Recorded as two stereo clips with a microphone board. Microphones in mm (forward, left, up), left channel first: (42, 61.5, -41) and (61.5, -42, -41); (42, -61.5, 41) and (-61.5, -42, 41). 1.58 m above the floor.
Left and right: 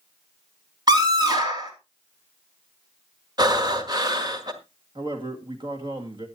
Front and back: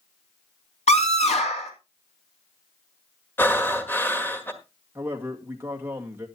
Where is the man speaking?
120° right, 2.5 m.